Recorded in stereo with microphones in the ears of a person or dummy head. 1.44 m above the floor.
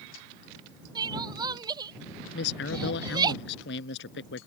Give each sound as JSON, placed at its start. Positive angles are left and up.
{"t": 0.9, "sound": "crying", "side_deg": -20}
{"t": 2.3, "sound": "a man speaking", "side_deg": 75}